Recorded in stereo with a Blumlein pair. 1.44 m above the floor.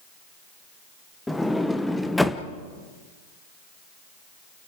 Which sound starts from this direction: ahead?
A sliding door, at 1.3 s.